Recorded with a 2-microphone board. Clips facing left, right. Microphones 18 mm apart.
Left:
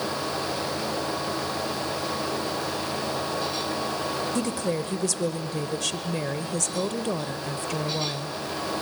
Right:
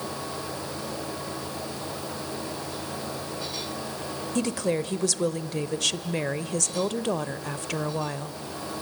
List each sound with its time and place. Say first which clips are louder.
4.3 s a woman speaking: even; 15° right (ahead or behind), 0.8 m